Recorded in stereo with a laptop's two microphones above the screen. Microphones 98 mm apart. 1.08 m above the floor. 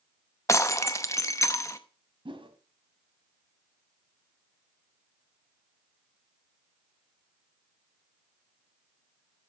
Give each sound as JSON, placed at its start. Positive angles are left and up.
{"t": 0.5, "sound": "breaking glass", "side_deg": 30, "distance_m": 0.6}
{"t": 2.2, "sound": "a whoosh", "side_deg": -60, "distance_m": 1.6}